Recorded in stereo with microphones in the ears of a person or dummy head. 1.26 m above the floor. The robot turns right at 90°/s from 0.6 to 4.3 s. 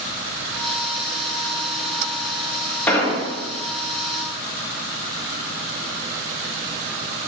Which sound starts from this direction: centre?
An explosion, at 2.9 s.